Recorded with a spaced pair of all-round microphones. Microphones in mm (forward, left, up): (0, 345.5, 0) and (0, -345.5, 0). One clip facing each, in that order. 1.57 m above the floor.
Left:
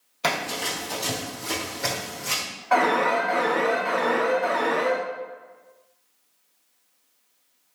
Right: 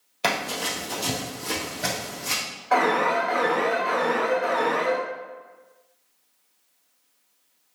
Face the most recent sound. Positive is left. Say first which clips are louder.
# even
turn(degrees=15)  # may be behind; listen again after turning